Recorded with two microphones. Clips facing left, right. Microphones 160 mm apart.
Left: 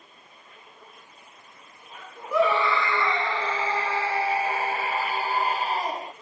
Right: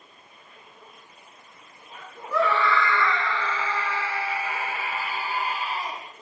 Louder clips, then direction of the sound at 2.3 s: Left 1 dB; 15° left (ahead or behind).